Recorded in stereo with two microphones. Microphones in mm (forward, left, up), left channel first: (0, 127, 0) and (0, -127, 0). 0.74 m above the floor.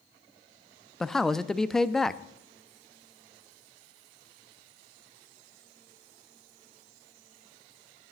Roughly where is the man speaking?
Centre.